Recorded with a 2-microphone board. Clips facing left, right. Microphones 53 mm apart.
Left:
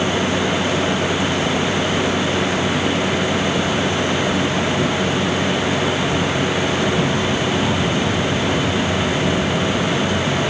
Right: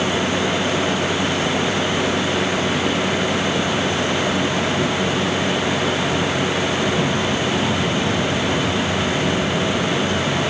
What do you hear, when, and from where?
Only background noise.